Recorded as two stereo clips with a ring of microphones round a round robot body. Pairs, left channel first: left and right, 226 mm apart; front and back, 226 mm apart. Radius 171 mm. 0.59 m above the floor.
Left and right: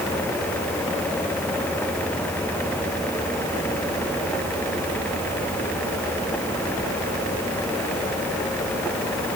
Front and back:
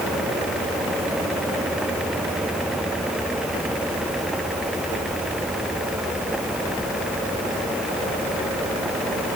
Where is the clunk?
I don't hear a clunk.